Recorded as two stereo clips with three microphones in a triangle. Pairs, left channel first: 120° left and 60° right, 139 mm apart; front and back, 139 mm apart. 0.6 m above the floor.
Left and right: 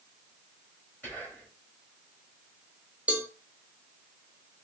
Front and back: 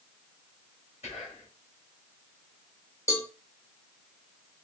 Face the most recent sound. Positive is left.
turn(degrees=0)